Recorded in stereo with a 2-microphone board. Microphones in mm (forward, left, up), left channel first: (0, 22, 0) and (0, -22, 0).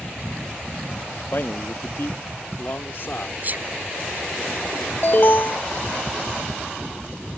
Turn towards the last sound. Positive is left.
turn(degrees=45)  # may be behind; listen again after turning